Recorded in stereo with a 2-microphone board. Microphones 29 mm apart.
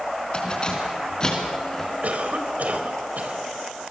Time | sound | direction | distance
0.3 | keys jangling | 35° left (ahead or behind) | 4.5 m
2.0 | a cough | 65° right (ahead or behind) | 3.5 m